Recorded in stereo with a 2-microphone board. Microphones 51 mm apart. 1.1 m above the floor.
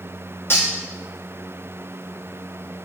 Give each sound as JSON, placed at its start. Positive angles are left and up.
{"t": 0.5, "sound": "cutlery clinking", "side_deg": 50, "distance_m": 0.7}